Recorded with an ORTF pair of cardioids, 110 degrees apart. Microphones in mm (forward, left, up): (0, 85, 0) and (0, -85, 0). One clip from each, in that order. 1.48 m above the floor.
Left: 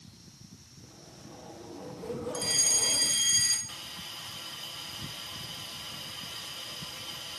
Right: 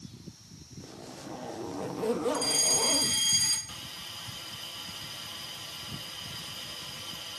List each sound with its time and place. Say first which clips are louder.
0.8 s a zipper: right 8 dB; 50° right, 1.1 m
2.3 s a fire alarm: right 1 dB; straight ahead, 3 m
3.7 s a hiss: even; 5° left, 1.1 m